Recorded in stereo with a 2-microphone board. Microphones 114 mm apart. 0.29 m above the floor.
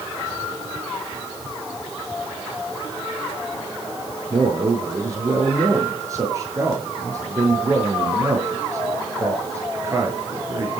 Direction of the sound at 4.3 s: 25° right (ahead or behind).